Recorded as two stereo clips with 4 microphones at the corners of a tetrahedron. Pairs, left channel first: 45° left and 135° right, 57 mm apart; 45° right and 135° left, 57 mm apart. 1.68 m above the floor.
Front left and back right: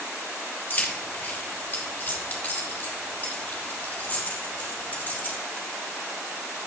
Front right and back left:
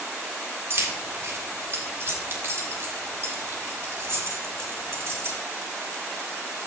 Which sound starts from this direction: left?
Keys jangling, at 0.7 s.